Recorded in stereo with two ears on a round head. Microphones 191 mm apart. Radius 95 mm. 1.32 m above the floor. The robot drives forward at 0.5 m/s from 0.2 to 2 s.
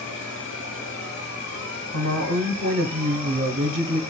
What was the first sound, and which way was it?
An insect, 65° left (ahead or behind).